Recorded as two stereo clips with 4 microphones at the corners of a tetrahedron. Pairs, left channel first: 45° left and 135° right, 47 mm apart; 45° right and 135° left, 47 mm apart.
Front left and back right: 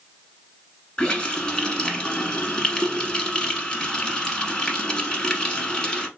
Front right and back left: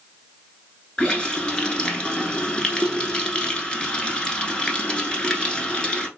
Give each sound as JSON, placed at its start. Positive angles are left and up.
{"t": 1.0, "sound": "a running tap", "azimuth_deg": -5, "distance_m": 0.9}